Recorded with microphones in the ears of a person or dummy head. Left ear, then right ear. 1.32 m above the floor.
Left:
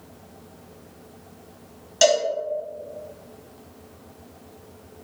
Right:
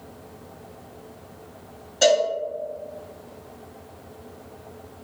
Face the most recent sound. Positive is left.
turn(degrees=65)  # may be behind; listen again after turning